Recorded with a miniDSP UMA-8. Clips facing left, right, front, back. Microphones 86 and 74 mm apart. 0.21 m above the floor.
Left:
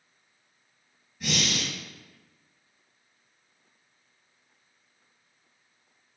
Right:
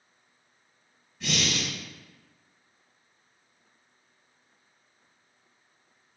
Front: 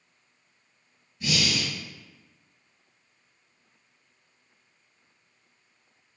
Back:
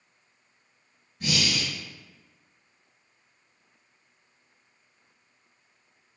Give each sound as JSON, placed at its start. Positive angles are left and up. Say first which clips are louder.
{"t": 1.2, "sound": "breathing", "louder": "even, even", "azimuth_deg": 170, "distance_m": 1.7}